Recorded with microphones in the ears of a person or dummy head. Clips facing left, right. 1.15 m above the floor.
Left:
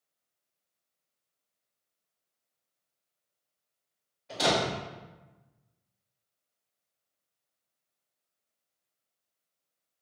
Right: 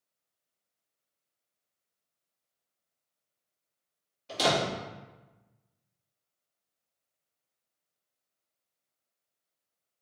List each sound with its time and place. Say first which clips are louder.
4.3 s a door slam: even; 40° right (ahead or behind), 1.4 m